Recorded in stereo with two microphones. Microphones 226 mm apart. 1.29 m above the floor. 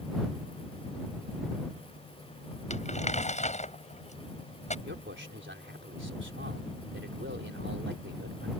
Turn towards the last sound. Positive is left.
turn(degrees=-55)  # may be behind; listen again after turning